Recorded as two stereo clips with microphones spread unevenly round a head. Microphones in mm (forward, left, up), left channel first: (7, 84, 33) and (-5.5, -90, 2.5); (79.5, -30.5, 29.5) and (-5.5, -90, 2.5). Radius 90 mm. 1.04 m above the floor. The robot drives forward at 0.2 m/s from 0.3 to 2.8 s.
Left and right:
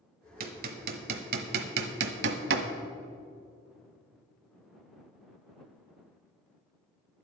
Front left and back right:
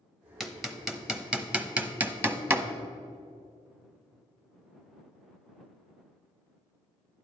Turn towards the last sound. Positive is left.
turn(degrees=-80)